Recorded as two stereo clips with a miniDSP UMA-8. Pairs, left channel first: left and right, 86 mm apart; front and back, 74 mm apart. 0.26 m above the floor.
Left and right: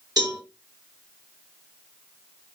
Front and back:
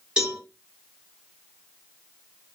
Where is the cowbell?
105° right, 2 m.